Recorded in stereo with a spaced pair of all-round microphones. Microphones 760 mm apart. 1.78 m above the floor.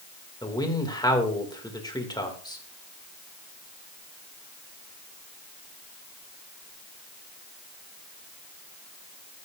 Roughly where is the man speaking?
Centre.